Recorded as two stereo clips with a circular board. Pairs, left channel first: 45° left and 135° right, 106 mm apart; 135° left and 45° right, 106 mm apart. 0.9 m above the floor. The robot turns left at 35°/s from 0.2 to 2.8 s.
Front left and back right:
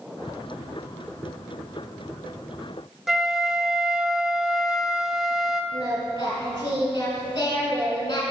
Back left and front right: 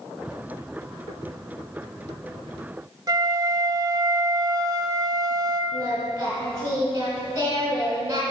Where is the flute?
50° right, 0.5 m.